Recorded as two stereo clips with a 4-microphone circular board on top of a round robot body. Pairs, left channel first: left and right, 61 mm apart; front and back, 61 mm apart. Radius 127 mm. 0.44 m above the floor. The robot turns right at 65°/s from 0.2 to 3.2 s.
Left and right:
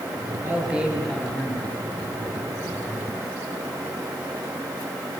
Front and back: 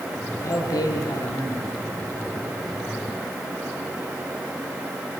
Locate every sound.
0.4 s a man speaking: 40° right, 9.5 m; by 1.7 s 45° left, 9.5 m